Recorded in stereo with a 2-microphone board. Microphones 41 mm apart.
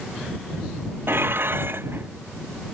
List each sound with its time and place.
1.1 s dishes clattering: 60° right (ahead or behind)